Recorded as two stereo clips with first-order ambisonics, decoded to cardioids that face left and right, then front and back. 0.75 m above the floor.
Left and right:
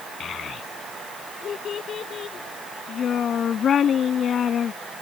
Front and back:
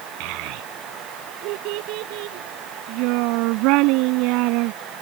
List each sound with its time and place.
0.2 s a child speaking: 155° left